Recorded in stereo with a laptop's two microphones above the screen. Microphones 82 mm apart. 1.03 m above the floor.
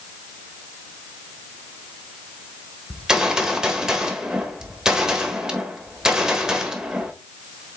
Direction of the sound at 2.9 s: 5° right (ahead or behind).